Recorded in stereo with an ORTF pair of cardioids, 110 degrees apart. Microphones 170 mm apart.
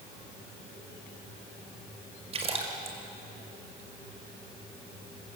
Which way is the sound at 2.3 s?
35° right.